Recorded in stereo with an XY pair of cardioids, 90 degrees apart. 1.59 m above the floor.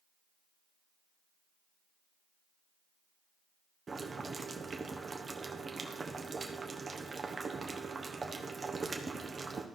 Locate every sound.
3.9 s boiling: 35° right, 1.2 m